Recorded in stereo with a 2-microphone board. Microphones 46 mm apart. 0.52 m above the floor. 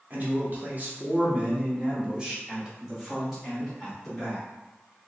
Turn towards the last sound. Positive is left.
turn(degrees=10)  # may be behind; listen again after turning